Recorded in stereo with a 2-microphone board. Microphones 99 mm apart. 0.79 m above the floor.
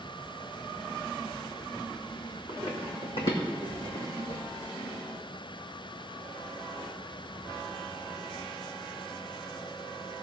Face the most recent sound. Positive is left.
turn(degrees=65)  # may be behind; listen again after turning